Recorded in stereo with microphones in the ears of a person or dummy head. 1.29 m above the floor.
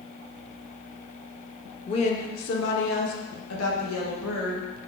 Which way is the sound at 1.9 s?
15° left (ahead or behind).